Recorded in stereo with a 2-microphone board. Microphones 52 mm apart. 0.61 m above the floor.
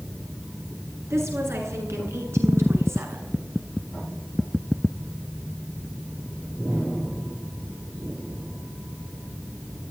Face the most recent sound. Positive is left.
turn(degrees=-65)  # may be behind; listen again after turning